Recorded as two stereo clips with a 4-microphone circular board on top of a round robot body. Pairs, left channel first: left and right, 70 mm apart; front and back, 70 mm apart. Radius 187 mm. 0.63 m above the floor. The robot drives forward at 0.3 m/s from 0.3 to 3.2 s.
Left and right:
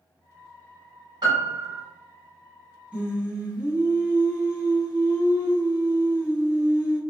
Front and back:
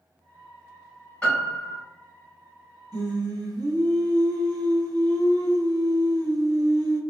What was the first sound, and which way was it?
A piano, 75° right.